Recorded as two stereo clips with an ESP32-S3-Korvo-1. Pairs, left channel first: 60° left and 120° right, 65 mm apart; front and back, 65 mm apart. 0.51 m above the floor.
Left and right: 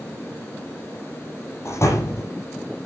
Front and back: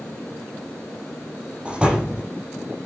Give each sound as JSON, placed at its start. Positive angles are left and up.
{"t": 1.6, "sound": "a door slam", "azimuth_deg": 105, "distance_m": 8.0}